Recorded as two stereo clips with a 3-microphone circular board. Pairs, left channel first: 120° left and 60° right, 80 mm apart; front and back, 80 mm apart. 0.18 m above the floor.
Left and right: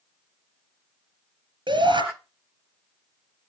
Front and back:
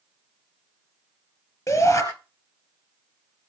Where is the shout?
50° right, 3.5 m.